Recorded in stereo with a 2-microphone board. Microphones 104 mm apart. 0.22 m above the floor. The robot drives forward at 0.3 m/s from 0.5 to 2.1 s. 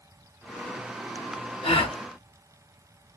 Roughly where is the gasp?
Left.